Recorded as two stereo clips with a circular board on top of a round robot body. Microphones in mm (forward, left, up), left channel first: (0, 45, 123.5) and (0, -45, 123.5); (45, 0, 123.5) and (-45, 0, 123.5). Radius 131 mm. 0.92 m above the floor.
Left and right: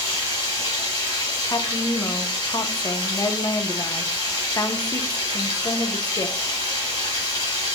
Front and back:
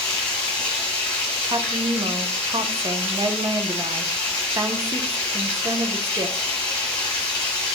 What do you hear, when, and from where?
0.0 s running water: 45° left, 1.0 m
1.4 s a woman speaking: 140° left, 0.6 m